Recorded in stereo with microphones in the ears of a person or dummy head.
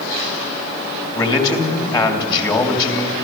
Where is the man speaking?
20° left (ahead or behind), 2.5 m.